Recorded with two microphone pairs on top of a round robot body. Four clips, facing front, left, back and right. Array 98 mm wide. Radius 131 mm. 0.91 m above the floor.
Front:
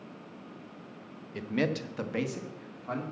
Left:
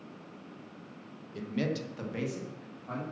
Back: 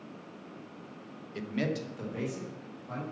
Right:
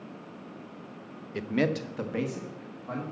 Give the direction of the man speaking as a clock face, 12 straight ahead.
3 o'clock.